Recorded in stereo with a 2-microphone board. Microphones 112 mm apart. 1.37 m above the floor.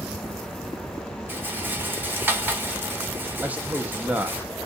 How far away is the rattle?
About 0.7 m.